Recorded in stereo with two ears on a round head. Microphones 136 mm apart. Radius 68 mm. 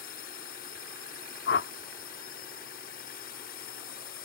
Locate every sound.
0.0 s a drone: 65° left (ahead or behind)
1.5 s a whoosh: 85° left